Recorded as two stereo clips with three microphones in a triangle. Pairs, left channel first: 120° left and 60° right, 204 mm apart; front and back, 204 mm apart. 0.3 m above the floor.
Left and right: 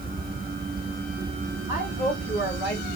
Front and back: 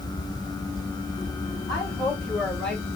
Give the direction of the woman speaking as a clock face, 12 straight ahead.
9 o'clock.